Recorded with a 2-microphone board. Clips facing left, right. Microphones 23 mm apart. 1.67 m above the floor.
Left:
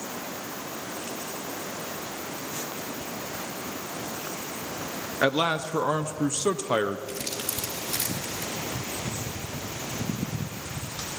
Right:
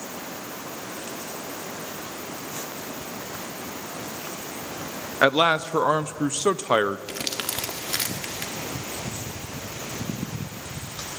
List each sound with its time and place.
5.2 s a man speaking: 25° right (ahead or behind), 0.6 m
7.1 s crumpling: 60° right (ahead or behind), 2 m